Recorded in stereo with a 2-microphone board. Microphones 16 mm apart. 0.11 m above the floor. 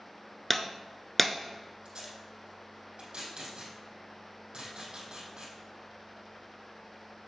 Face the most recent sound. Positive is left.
turn(degrees=-70)  # may be behind; listen again after turning